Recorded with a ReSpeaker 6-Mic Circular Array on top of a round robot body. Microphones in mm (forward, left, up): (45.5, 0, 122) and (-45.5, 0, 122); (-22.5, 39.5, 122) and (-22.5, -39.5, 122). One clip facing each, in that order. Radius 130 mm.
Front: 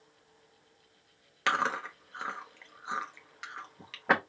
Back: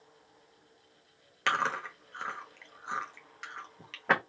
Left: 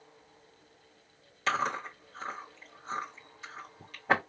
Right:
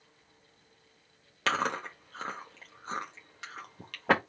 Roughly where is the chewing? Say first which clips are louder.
Front 1 dB, even; right.